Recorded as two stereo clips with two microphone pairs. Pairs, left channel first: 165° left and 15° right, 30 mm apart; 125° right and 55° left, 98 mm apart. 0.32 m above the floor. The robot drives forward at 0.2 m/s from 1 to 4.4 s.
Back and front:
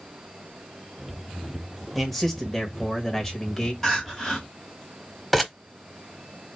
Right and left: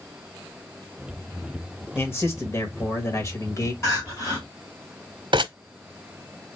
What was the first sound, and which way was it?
A man speaking, 115° right.